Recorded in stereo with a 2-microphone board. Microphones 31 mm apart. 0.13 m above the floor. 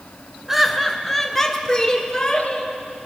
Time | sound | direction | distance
0.5 | laughter | 10° right (ahead or behind) | 1.1 m